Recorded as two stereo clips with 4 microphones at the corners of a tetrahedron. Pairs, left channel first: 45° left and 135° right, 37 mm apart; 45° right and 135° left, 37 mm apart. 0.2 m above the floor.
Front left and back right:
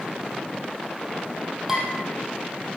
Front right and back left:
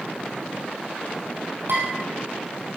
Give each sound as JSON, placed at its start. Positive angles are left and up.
{"t": 1.7, "sound": "dishes clattering", "azimuth_deg": 145, "distance_m": 4.5}